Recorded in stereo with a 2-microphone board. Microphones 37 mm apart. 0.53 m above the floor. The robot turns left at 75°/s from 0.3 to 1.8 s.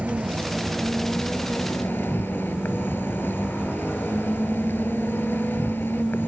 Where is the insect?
140° right; by 6.3 s 105° left.